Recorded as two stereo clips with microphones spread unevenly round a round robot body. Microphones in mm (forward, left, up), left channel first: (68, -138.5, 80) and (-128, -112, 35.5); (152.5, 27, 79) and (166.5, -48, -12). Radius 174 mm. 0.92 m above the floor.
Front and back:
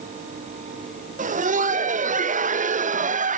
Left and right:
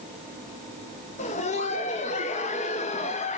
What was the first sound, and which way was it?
Laughter, 165° left.